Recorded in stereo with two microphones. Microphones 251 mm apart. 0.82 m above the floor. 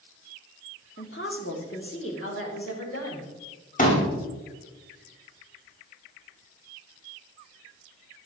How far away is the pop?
About 2 m.